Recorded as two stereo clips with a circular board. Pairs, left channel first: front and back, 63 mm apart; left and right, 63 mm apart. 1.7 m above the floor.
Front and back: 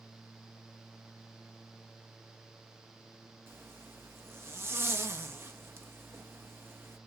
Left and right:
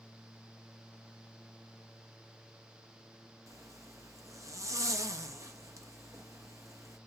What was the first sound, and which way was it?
A zipper, 130° right.